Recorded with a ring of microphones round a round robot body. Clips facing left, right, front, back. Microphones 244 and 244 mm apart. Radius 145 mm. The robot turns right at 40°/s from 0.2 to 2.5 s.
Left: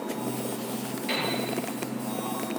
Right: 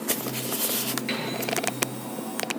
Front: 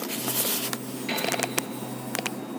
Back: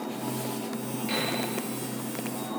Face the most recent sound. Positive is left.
turn(degrees=-15)